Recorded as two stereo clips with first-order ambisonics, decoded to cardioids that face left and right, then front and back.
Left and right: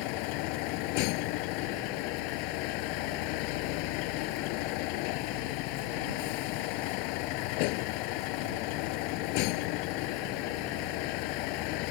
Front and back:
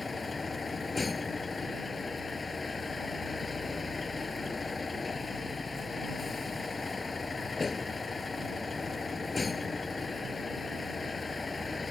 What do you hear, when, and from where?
0.0 s a vehicle: 75° left